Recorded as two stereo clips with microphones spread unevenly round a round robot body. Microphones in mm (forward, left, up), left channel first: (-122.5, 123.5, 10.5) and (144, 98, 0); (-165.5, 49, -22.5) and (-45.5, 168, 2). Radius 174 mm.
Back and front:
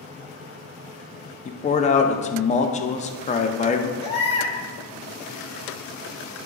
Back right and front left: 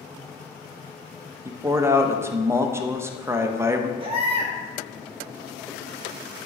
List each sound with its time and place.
1.4 s a man speaking: 125° left, 0.5 m
4.0 s a baby crying: 105° left, 1.6 m